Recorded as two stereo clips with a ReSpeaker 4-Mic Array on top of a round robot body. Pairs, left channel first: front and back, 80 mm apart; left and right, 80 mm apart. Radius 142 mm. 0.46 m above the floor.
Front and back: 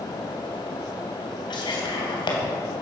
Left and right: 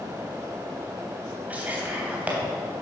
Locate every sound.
1.5 s whispering: 20° right, 3 m